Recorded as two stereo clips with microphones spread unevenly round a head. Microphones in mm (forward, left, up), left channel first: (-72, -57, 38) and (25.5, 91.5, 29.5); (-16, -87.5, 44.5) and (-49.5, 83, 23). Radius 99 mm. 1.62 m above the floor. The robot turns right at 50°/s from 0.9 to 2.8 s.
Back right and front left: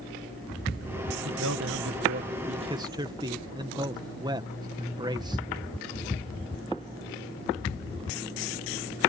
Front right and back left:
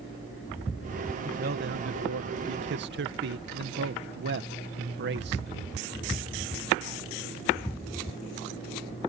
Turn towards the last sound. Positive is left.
turn(degrees=125)